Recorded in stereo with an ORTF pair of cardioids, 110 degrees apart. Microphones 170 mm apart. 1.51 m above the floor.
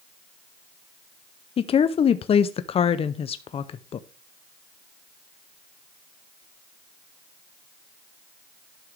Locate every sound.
1.6 s a woman speaking: 35° left, 0.6 m